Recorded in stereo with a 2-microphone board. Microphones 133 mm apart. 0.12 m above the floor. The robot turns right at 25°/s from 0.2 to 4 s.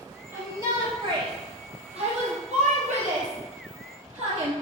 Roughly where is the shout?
Right.